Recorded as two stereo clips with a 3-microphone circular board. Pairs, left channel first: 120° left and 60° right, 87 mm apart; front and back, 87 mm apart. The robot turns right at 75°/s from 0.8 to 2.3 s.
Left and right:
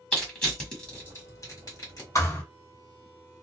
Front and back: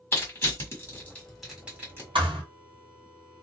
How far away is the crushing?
About 1.4 m.